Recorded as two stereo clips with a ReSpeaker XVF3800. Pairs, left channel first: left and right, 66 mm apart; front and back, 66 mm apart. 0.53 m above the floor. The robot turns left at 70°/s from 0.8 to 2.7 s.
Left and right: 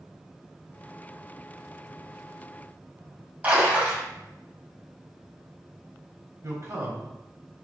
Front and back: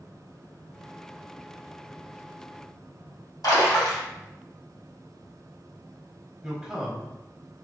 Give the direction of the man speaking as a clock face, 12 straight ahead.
3 o'clock.